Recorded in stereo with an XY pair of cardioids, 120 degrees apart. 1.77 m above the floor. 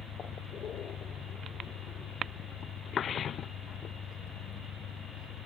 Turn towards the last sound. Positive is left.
turn(degrees=70)